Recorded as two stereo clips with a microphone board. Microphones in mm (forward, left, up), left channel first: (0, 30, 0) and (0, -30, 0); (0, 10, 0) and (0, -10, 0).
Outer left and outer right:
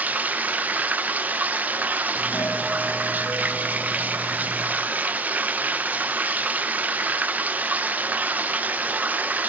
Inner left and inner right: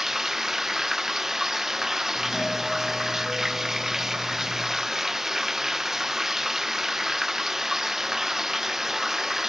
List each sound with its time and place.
0.0 s running water: 25° right (ahead or behind), 0.8 m
2.1 s a doorbell: 45° left (ahead or behind), 2.5 m